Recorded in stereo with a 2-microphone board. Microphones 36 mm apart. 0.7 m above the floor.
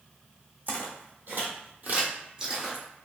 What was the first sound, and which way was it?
Footsteps, 60° right (ahead or behind).